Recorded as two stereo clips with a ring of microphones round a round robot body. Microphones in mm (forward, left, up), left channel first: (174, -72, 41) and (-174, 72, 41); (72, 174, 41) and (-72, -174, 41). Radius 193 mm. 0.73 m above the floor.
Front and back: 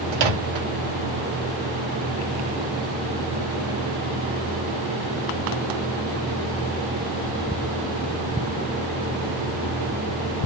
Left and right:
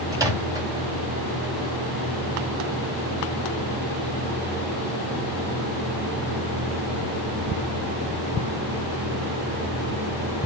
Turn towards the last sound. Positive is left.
turn(degrees=165)